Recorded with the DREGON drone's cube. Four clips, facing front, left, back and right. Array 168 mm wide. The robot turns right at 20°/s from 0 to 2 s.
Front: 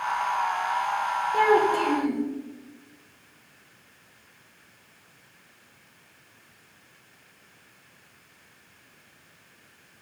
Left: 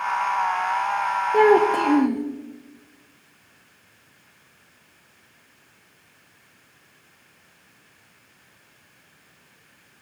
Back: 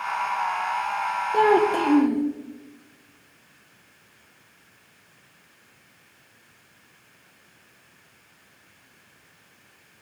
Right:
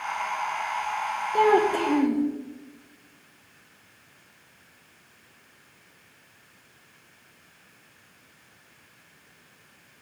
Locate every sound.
1.3 s a child speaking: 115° left, 2 m; by 2.2 s 130° left, 2 m